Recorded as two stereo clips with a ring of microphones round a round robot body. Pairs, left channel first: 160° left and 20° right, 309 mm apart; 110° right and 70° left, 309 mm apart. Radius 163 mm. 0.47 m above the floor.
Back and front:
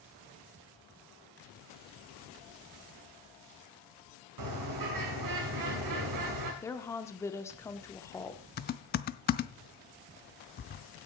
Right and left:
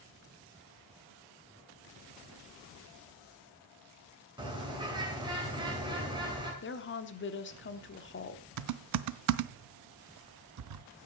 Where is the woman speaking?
125° right, 1.2 m.